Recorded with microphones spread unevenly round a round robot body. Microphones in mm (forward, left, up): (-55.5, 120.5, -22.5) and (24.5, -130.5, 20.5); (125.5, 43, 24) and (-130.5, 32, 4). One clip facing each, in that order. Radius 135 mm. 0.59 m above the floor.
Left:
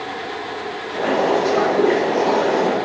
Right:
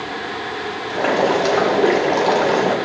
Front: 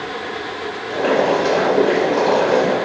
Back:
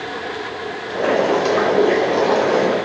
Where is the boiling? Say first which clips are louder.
Even, front 1 dB; 100° right, 1.2 m.